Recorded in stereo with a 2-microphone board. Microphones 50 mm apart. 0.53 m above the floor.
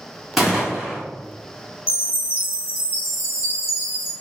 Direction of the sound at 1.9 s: 50° left (ahead or behind).